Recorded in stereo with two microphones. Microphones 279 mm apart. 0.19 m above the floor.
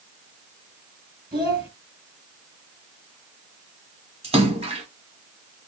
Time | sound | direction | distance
1.3 | a child speaking | 15° right (ahead or behind) | 1.2 m
4.2 | a splash | 20° right (ahead or behind) | 1.3 m